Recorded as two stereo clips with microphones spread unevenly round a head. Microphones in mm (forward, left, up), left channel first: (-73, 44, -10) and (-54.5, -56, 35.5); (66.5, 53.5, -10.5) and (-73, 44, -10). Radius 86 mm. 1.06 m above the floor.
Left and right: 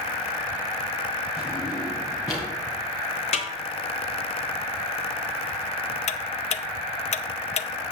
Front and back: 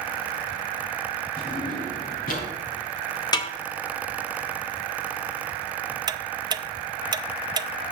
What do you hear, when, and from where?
1.4 s a drawer: 25° left, 4 m
3.3 s a snare drum: 65° left, 1.2 m
6.1 s ticking: 120° left, 0.6 m